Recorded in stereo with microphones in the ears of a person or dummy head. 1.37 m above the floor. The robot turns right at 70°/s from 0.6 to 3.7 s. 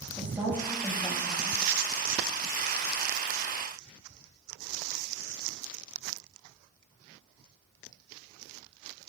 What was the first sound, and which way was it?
A woman speaking, 10° right.